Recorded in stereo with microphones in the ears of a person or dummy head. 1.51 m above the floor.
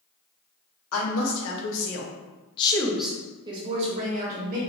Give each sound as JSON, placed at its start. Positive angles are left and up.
{"t": 0.9, "sound": "a woman speaking", "side_deg": 80, "distance_m": 1.5}